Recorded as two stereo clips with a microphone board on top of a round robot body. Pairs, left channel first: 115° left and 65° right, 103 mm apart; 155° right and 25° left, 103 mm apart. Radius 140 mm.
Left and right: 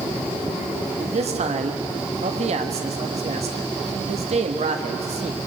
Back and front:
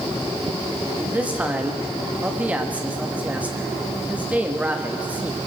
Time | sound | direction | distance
1.0 | a man speaking | 55° right | 1.6 m